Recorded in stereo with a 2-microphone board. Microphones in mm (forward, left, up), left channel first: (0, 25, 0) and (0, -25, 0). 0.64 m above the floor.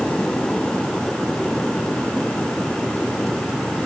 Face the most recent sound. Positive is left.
No sound to turn to.